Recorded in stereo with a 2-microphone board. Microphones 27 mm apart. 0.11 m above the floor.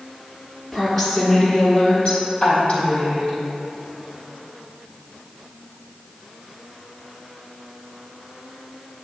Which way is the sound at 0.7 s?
Centre (ahead or behind).